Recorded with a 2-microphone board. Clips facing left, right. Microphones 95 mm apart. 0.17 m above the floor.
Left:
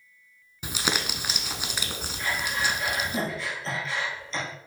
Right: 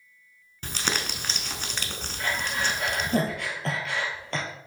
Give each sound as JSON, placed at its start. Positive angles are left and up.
{"t": 0.6, "sound": "crumpling", "side_deg": 10, "distance_m": 0.8}
{"t": 2.2, "sound": "breathing", "side_deg": -65, "distance_m": 1.9}